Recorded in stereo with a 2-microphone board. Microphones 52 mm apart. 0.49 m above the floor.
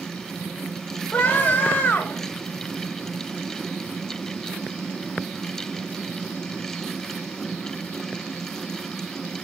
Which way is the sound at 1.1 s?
30° left (ahead or behind).